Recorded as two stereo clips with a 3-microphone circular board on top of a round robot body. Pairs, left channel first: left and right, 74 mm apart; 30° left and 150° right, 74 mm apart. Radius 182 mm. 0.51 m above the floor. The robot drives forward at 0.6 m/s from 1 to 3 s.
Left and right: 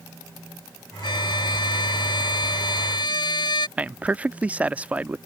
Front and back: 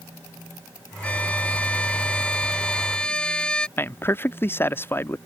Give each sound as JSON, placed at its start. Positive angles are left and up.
{"t": 1.0, "sound": "a violin", "azimuth_deg": 105}
{"t": 3.8, "sound": "a man speaking", "azimuth_deg": -25}